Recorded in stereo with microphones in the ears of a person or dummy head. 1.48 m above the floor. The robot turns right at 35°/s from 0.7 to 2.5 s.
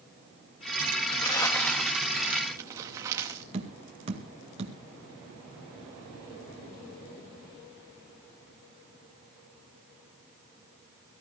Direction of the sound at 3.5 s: 30° right (ahead or behind).